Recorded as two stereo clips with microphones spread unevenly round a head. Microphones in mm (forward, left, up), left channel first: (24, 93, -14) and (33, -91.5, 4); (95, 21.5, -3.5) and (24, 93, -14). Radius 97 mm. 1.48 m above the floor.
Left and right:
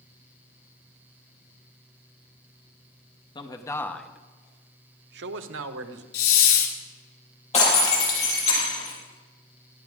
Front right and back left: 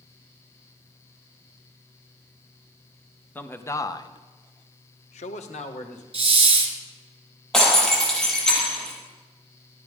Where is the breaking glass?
40° left, 7 m.